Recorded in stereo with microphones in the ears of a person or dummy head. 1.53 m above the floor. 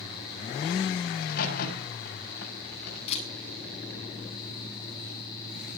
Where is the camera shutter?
40° left (ahead or behind), 9 m.